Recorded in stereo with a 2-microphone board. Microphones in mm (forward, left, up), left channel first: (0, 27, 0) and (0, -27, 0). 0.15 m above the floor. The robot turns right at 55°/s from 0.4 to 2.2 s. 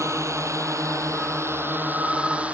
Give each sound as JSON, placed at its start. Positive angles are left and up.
{"t": 0.0, "sound": "a drone", "side_deg": -65}